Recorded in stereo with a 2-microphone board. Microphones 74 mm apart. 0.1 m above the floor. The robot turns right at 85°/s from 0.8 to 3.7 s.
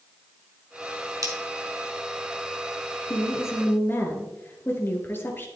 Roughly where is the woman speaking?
Left.